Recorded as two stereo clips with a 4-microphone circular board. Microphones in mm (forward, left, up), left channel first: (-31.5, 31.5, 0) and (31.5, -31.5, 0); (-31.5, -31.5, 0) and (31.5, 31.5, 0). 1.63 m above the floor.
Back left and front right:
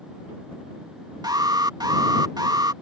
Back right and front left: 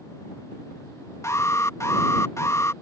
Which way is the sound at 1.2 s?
85° right.